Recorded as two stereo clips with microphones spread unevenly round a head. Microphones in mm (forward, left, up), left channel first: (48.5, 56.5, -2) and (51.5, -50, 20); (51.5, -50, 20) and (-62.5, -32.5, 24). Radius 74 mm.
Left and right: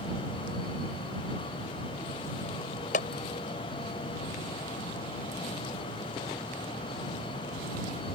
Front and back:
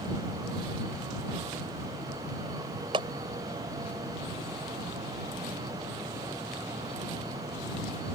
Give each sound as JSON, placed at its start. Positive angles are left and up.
{"t": 2.9, "sound": "a clap", "azimuth_deg": 110}